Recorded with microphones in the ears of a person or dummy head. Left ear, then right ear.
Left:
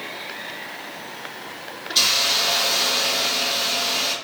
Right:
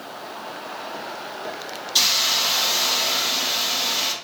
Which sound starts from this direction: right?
A hiss, at 1.9 s.